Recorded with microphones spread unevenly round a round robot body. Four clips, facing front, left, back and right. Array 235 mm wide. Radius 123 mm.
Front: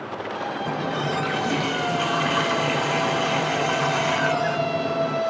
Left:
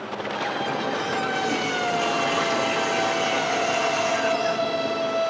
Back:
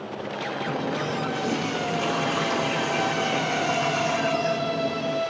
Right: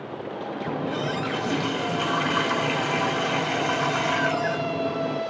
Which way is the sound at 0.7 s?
35° right.